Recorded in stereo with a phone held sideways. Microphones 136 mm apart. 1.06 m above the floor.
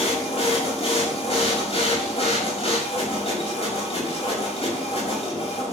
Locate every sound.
0.0 s a machine running: 50° left (ahead or behind), 7 m